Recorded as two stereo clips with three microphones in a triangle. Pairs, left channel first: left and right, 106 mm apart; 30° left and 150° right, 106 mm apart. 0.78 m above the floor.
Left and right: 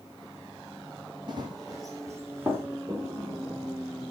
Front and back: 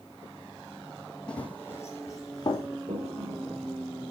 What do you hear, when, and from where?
1.3 s running footsteps: 50° right, 1.7 m; by 2.7 s 20° right, 2.5 m
2.9 s a toilet flushing: 145° right, 0.9 m